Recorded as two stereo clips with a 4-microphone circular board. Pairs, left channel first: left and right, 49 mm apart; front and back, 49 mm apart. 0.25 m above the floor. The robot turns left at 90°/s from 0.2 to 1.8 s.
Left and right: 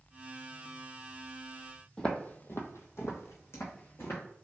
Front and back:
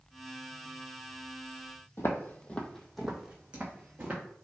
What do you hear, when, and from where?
2.0 s footsteps: 20° left, 0.6 m; by 4.2 s 125° left, 1.2 m